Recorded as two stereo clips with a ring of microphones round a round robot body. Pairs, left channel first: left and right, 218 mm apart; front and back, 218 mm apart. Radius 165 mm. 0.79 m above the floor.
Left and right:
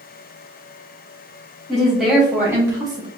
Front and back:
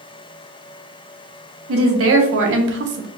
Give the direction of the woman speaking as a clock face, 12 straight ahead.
6 o'clock.